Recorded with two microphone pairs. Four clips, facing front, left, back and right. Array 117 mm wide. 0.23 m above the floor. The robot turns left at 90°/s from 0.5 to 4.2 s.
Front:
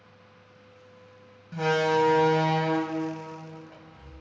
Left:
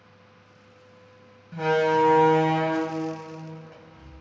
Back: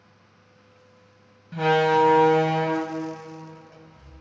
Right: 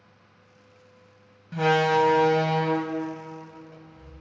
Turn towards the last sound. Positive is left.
turn(degrees=0)